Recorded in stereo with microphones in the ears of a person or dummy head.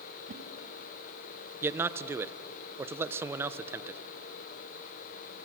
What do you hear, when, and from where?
0.3 s a whoosh: 40° right (ahead or behind), 2.0 m
1.6 s a man speaking: 10° right (ahead or behind), 0.9 m